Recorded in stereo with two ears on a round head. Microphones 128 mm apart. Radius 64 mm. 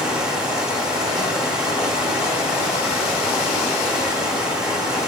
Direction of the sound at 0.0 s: 5° right (ahead or behind).